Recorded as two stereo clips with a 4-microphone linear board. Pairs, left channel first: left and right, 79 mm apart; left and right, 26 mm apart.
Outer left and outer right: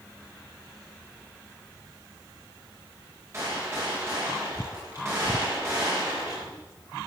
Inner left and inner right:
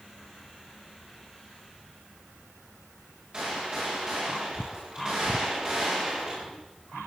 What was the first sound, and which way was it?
A gunshot, 35° right (ahead or behind).